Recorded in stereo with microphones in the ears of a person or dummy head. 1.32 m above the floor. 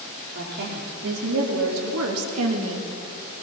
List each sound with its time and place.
0.3 s a woman speaking: 55° right (ahead or behind), 4 m; by 2.9 s 75° right (ahead or behind), 2.5 m